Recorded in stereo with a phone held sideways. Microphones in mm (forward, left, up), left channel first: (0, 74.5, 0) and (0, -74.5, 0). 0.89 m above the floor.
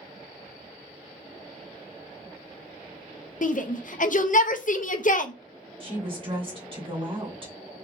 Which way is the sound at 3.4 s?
60° left (ahead or behind).